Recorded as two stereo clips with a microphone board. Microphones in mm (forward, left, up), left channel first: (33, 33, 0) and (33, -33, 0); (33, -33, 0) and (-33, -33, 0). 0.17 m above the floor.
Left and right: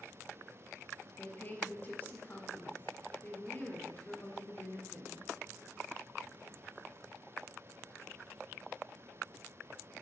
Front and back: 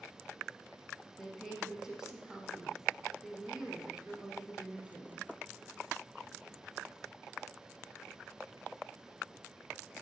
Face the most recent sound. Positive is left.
turn(degrees=110)